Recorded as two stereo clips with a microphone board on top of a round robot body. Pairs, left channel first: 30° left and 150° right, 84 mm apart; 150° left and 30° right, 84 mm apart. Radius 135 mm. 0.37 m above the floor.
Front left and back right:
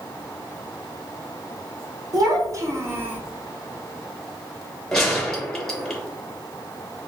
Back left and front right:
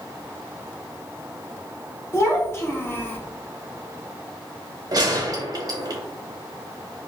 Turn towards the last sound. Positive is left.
turn(degrees=-55)